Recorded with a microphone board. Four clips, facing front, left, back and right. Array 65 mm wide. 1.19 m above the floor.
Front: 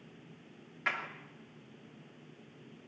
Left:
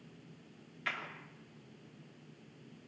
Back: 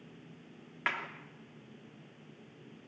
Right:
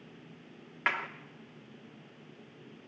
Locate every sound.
0.9 s a clap: 110° right, 2.5 m